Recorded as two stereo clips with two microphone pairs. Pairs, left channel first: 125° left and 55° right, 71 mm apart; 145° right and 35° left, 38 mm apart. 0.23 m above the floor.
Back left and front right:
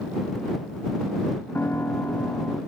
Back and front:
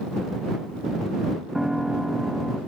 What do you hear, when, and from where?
1.6 s a piano: 100° left